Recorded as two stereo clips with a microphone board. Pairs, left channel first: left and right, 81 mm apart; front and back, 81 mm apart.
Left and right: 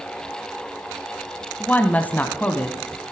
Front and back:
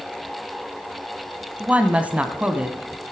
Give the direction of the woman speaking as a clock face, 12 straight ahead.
8 o'clock.